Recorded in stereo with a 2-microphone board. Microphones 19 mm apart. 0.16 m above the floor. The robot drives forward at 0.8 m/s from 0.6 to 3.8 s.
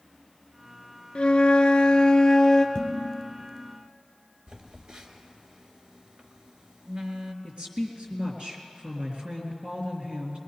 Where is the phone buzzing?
50° right (ahead or behind), 1.2 m.